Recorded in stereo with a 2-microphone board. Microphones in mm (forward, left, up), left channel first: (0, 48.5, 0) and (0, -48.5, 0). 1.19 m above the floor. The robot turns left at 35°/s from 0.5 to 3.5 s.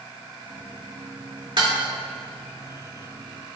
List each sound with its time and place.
1.6 s dishes clattering: 55° right (ahead or behind), 2 m; by 1.8 s 45° right (ahead or behind), 2 m